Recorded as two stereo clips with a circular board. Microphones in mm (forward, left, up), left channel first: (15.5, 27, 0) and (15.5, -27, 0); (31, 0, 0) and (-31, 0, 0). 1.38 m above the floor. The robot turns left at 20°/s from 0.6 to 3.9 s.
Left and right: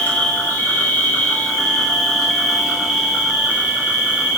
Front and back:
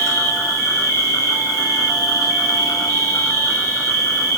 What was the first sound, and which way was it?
An insect, 35° left.